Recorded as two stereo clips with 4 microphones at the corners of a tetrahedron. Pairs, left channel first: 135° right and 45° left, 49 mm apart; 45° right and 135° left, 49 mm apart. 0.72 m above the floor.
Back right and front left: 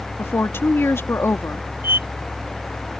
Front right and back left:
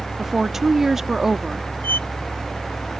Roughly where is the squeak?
Ahead.